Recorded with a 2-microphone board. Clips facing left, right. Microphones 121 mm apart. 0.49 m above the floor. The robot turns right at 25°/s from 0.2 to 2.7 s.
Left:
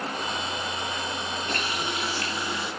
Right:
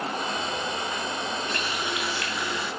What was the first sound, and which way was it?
A running tap, 130° left.